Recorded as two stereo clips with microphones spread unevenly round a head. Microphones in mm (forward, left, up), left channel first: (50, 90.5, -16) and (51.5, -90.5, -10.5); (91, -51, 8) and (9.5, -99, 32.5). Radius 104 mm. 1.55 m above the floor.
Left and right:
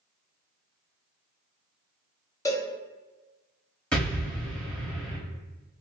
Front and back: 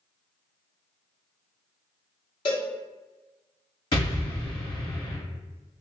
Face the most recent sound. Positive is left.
turn(degrees=5)